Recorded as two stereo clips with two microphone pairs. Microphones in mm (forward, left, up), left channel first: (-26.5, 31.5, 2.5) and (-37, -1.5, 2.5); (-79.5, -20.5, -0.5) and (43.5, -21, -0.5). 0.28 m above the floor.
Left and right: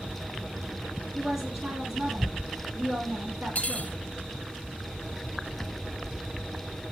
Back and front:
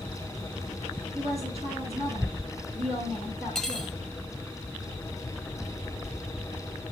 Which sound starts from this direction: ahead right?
A woman speaking, at 1.1 s.